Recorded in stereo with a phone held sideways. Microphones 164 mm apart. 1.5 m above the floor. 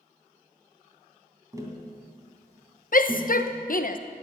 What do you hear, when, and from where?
1.5 s tapping: 20° right (ahead or behind), 2.5 m
2.9 s a shout: 60° left (ahead or behind), 0.9 m